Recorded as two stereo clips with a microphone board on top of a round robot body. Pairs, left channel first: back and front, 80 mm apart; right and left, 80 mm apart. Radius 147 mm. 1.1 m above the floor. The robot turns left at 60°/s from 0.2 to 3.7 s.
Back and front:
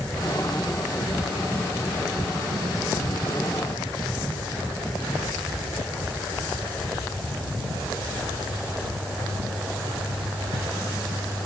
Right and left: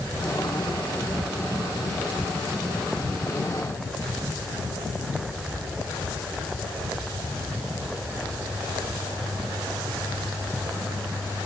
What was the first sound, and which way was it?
Only background noise.